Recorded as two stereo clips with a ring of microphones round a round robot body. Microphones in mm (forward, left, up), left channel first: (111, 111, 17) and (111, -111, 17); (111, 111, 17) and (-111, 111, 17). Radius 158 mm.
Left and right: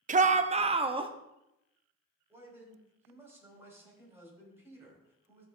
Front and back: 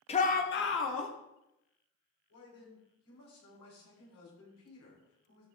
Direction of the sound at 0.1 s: 50° right.